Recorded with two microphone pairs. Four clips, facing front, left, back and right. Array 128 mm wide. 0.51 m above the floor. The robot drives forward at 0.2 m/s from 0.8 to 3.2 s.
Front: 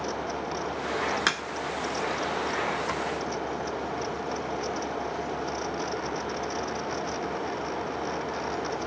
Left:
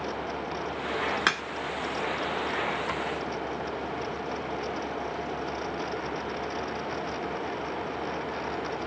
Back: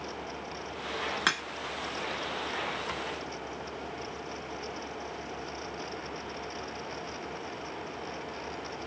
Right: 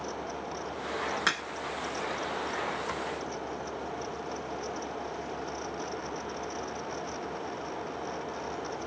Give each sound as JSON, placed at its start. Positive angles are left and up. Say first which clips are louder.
{"t": 1.3, "sound": "a crack", "louder": "left 3 dB, front 2 dB", "azimuth_deg": 100, "distance_m": 1.5}